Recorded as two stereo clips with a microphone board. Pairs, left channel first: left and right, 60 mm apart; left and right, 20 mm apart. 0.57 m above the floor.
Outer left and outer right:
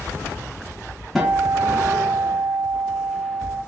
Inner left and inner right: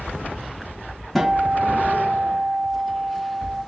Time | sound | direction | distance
1.1 | a guitar | centre (ahead or behind) | 1.2 m